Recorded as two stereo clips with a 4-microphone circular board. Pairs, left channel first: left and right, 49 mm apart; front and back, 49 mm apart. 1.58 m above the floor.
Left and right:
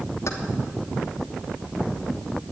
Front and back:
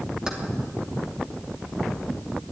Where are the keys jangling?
105° left, 2.5 m.